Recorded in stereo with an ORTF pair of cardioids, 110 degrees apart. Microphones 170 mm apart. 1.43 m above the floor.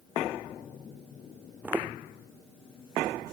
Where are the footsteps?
10° right.